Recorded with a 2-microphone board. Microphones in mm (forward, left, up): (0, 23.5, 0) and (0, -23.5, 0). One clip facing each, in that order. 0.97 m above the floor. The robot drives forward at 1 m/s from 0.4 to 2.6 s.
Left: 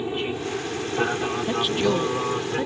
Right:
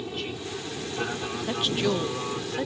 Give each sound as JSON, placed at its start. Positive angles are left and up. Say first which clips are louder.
{"t": 0.0, "sound": "an aircraft", "louder": "left 7 dB", "side_deg": 25}
{"t": 1.5, "sound": "a woman speaking", "louder": "left 2 dB", "side_deg": 10}